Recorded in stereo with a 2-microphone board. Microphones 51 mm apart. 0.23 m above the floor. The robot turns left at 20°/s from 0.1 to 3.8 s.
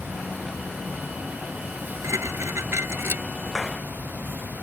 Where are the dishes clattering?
70° right (ahead or behind); by 3.2 s 50° right (ahead or behind).